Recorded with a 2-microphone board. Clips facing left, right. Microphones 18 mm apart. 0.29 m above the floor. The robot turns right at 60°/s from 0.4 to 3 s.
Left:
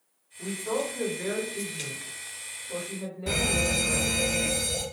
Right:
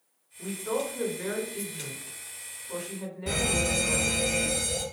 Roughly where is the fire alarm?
Centre.